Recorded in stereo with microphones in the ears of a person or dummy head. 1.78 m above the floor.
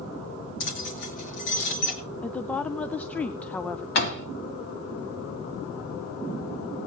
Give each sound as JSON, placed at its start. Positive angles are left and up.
{"t": 0.6, "sound": "keys jangling", "side_deg": 65, "distance_m": 2.5}
{"t": 2.2, "sound": "a woman speaking", "side_deg": 5, "distance_m": 0.6}
{"t": 4.0, "sound": "a door slam", "side_deg": 60, "distance_m": 2.0}